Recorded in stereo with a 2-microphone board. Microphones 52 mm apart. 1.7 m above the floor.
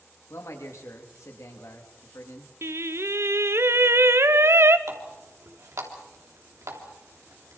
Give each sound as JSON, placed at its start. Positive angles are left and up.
{"t": 0.3, "sound": "a man speaking", "side_deg": 70, "distance_m": 3.5}
{"t": 2.6, "sound": "singing", "side_deg": -60, "distance_m": 0.7}
{"t": 4.9, "sound": "a running tap", "side_deg": -75, "distance_m": 3.0}